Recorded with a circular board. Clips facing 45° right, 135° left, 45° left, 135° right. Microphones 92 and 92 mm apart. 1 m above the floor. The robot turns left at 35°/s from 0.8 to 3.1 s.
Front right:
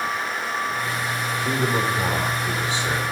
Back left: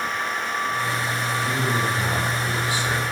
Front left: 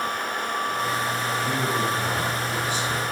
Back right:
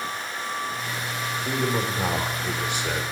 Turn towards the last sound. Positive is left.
turn(degrees=-125)